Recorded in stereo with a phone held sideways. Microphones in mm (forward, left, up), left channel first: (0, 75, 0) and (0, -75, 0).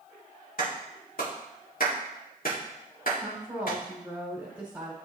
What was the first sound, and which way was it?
A clap, 75° left (ahead or behind).